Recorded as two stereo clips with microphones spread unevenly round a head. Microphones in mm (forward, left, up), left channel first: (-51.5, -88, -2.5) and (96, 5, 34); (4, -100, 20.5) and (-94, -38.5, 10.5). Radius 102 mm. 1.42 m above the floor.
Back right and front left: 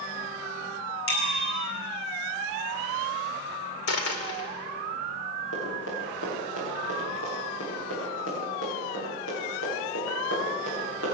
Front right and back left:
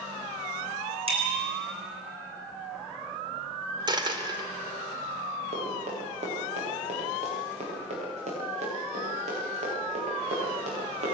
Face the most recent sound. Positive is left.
turn(degrees=175)